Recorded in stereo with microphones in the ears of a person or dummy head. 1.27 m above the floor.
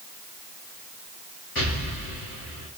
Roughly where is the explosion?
Left.